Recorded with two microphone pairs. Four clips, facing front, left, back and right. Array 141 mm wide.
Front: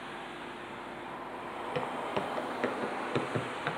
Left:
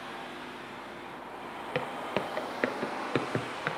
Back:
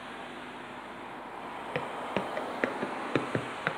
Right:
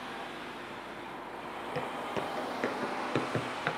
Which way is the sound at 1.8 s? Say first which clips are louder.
Left 3 dB, even; 125° left.